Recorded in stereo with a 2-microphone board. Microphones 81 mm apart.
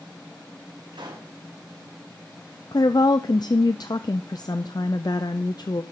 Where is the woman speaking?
55° left (ahead or behind), 0.5 m.